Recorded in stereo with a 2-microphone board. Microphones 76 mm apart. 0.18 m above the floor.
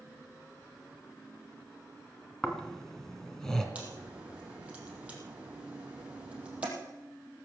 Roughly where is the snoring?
Centre.